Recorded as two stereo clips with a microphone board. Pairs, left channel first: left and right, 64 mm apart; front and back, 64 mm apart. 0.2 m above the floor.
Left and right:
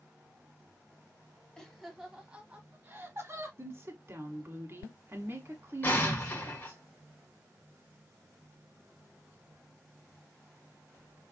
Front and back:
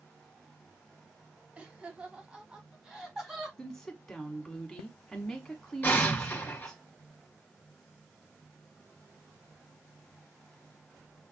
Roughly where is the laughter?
Behind left.